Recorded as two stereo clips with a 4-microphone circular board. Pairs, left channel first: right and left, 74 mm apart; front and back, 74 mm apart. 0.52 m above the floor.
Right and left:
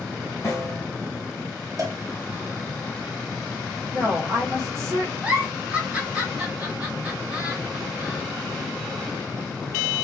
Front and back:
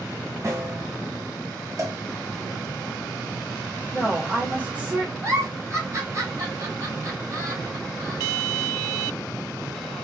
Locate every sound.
0.4 s a snare drum: 140° right, 2.5 m
1.8 s a cowbell: 135° left, 1.0 m
3.9 s a woman speaking: 120° left, 1.6 m
5.2 s a giggle: 160° left, 1.5 m